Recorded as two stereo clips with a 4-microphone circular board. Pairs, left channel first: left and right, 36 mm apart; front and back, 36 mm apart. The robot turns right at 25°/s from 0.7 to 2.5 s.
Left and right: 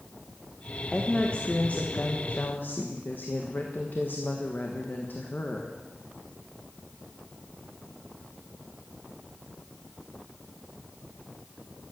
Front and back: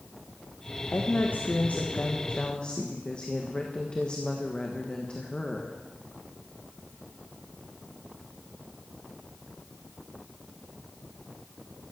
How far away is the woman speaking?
About 1.4 m.